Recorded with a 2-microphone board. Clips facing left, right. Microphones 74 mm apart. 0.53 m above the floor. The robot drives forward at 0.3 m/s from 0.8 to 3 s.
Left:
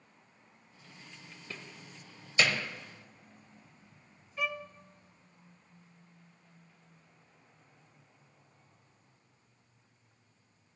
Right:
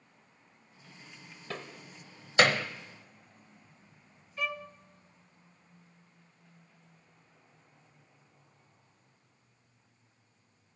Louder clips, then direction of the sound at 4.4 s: Even; 5° left (ahead or behind).